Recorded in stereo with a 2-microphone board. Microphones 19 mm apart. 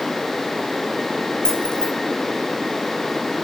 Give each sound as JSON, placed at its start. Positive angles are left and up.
{"t": 1.4, "sound": "keys jangling", "side_deg": 45, "distance_m": 2.5}